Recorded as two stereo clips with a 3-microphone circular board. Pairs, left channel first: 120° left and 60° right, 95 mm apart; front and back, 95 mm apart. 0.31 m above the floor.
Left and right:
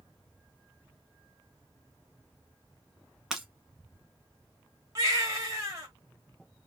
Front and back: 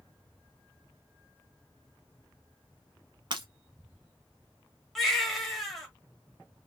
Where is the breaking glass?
145° right, 0.9 m.